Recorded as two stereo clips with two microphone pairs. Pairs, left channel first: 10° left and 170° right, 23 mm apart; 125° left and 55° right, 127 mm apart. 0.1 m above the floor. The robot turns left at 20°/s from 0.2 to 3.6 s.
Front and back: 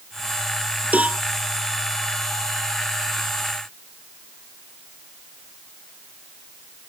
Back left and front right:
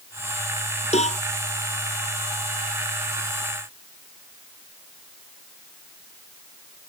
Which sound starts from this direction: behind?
A cowbell, at 0.9 s.